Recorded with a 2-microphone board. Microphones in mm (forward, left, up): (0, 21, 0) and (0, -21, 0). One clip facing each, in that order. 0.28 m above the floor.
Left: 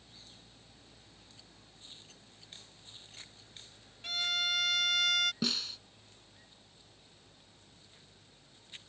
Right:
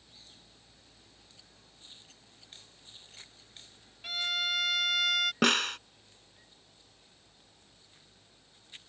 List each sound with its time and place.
4.0 s a violin: 5° right (ahead or behind)
5.4 s a snare drum: 65° right (ahead or behind)